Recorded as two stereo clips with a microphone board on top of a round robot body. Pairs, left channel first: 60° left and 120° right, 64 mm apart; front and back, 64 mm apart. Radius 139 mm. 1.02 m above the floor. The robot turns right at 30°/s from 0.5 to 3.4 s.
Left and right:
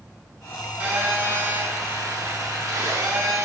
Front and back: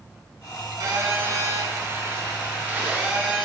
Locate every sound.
0.8 s a phone buzzing: 170° left, 5.5 m; by 3.5 s 110° right, 5.5 m